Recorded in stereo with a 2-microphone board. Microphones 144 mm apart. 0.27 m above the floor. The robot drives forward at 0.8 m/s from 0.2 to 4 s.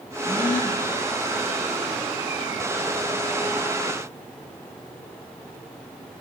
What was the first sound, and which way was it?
A gasp, 75° left (ahead or behind).